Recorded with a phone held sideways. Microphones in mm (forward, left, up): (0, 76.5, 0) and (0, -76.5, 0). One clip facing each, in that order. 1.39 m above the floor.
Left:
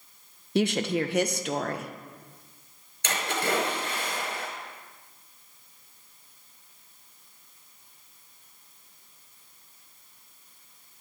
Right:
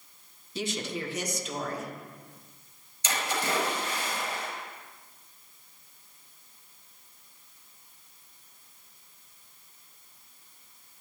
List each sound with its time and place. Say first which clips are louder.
0.6 s a woman speaking: left 9 dB; 65° left (ahead or behind), 1.1 m
3.0 s a splash: left 2 dB; 65° left (ahead or behind), 5 m